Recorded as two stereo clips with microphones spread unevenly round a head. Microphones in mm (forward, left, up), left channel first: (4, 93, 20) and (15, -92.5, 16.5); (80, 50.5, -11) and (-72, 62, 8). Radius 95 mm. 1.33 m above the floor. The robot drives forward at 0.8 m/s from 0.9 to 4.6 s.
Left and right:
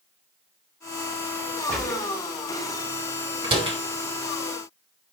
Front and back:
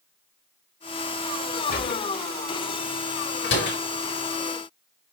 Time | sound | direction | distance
1.7 | a gunshot | 10° left | 3 m
3.4 | a door slam | 25° right | 4 m